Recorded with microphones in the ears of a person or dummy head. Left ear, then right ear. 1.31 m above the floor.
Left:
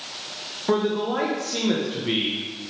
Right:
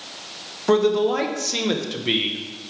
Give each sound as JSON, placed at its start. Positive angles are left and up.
{"t": 0.7, "sound": "a man speaking", "side_deg": -75, "distance_m": 1.2}